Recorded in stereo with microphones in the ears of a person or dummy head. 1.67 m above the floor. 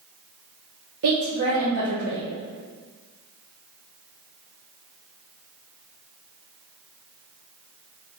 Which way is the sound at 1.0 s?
60° right (ahead or behind).